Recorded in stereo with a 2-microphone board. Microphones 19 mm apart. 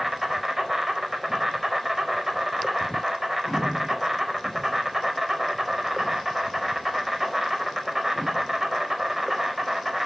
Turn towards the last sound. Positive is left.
turn(degrees=-15)  # may be behind; listen again after turning